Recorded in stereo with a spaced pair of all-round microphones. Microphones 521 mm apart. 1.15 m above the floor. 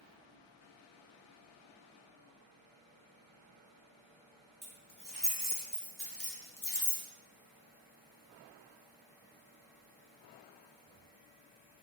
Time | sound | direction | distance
4.6 | keys jangling | 10° left (ahead or behind) | 1.5 m